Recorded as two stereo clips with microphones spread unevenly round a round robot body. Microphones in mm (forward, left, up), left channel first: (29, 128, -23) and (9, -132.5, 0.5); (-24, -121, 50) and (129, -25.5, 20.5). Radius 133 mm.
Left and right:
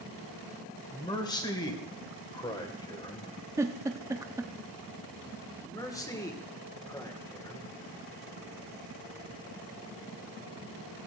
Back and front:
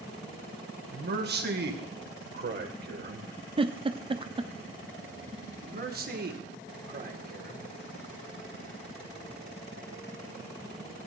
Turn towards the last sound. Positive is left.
turn(degrees=10)